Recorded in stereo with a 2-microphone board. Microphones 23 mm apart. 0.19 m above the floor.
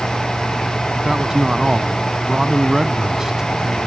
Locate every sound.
1.0 s a man speaking: 25° right (ahead or behind)